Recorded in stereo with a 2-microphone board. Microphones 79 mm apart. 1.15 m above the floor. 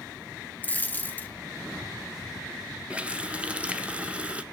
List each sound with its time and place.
0.6 s a dropped coin: 20° left (ahead or behind), 0.9 m
2.9 s a running tap: 15° right (ahead or behind), 0.5 m